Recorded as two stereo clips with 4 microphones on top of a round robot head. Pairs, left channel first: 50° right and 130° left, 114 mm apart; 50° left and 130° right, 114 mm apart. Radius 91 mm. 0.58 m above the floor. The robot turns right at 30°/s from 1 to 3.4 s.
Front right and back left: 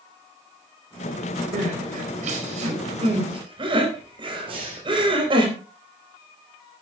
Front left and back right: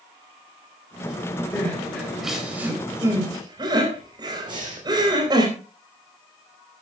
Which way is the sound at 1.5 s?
120° left.